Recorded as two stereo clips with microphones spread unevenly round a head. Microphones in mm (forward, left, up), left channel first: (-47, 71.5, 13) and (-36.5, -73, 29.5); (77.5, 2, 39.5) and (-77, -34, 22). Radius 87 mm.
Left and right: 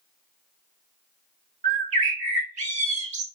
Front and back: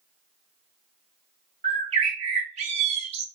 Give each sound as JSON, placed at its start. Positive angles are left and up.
{"t": 1.6, "sound": "a bird", "azimuth_deg": -115, "distance_m": 0.9}